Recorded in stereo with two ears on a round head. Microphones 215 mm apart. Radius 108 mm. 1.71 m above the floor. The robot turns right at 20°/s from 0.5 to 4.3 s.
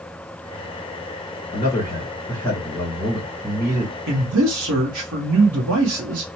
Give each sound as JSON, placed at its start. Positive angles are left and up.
{"t": 1.5, "sound": "a man speaking", "azimuth_deg": 150, "distance_m": 1.7}
{"t": 4.1, "sound": "a man speaking", "side_deg": -55, "distance_m": 1.0}